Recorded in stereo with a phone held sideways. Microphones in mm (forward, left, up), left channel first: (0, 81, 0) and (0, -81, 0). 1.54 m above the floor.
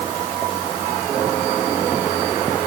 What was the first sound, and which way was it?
Only background noise.